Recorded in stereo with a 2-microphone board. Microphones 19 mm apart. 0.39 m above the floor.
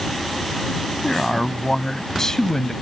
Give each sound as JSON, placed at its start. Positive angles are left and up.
{"t": 1.0, "sound": "a man speaking", "side_deg": 30}